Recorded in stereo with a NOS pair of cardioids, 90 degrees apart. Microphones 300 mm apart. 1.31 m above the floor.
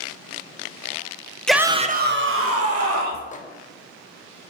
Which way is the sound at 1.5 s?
5° left.